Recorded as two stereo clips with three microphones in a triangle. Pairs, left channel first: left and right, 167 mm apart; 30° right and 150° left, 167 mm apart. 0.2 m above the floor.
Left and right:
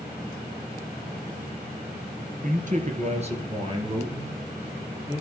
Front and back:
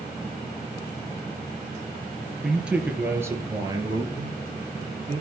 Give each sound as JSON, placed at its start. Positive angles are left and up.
{"t": 2.4, "sound": "a man speaking", "azimuth_deg": -120, "distance_m": 3.5}